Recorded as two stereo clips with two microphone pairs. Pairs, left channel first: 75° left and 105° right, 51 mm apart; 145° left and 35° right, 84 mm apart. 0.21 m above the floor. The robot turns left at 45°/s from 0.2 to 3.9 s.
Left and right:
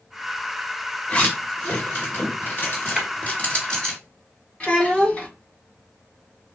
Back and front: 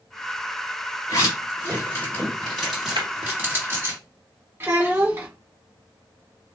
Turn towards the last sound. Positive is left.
turn(degrees=15)